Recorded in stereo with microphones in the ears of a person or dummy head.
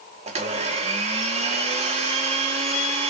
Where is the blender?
40° right (ahead or behind), 0.9 m.